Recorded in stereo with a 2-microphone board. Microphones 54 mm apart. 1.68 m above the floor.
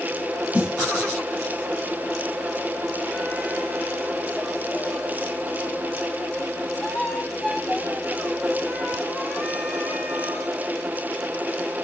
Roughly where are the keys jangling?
No keys jangling in this recording.